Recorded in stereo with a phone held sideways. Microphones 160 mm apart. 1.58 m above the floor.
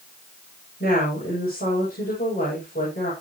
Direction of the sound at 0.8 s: 70° left (ahead or behind).